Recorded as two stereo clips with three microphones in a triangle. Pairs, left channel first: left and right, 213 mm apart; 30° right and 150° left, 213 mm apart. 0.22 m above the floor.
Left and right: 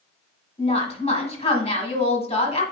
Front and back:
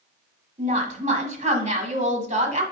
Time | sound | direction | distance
0.6 | a woman speaking | 125° left | 1.2 m